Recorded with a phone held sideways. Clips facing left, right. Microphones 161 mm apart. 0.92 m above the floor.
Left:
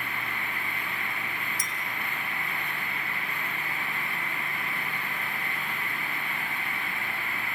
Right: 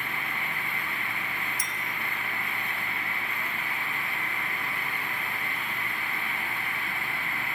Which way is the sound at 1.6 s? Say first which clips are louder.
Even; 75° left (ahead or behind).